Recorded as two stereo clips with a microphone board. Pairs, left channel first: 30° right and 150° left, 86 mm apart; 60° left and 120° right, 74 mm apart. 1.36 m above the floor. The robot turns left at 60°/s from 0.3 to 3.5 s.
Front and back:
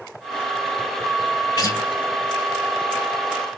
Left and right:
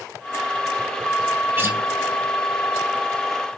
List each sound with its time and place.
1.6 s a guitar: 65° right, 2.0 m; by 1.8 s 75° right, 2.0 m